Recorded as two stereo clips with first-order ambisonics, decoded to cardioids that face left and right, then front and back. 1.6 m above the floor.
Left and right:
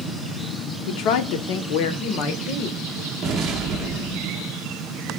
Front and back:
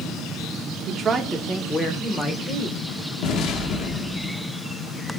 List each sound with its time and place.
0.9 s a woman speaking: 125° left, 0.8 m; by 2.8 s 60° left, 2.0 m
3.2 s an explosion: 35° right, 1.3 m